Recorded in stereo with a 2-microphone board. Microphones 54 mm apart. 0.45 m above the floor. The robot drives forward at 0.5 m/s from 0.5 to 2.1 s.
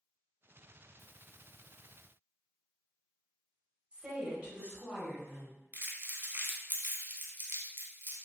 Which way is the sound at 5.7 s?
45° right (ahead or behind).